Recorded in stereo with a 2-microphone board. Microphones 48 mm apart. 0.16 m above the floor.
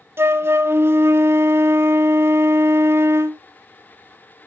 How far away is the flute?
About 0.5 m.